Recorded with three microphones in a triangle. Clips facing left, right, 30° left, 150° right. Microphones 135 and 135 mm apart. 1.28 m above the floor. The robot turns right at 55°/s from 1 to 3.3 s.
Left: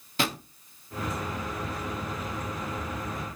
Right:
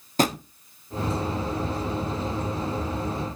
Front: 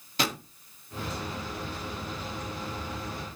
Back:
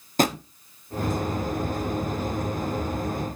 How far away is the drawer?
About 0.8 m.